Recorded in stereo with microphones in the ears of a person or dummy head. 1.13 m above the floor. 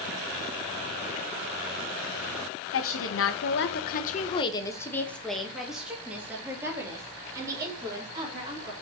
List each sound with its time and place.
2.7 s a woman speaking: 65° left (ahead or behind), 1.5 m; by 8.7 s 20° right (ahead or behind), 4 m